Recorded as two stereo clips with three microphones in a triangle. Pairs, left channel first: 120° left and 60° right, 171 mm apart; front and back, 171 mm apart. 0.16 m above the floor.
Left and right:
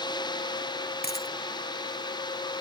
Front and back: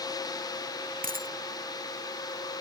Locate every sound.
1.0 s a dropped coin: 145° left